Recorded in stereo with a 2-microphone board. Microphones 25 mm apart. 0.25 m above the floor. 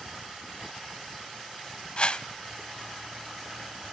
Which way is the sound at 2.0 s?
40° left (ahead or behind).